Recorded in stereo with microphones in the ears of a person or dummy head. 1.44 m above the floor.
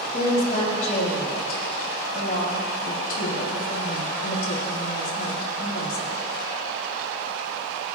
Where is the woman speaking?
55° left (ahead or behind), 2.5 m.